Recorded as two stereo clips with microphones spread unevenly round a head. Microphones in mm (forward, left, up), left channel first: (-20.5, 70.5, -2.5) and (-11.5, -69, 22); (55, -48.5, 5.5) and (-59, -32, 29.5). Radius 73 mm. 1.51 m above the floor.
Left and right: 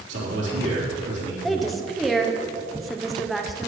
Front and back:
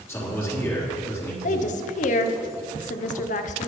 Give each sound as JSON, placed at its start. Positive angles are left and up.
{"t": 0.1, "sound": "a man speaking", "azimuth_deg": -75, "distance_m": 3.5}
{"t": 1.4, "sound": "a woman speaking", "azimuth_deg": 5, "distance_m": 0.8}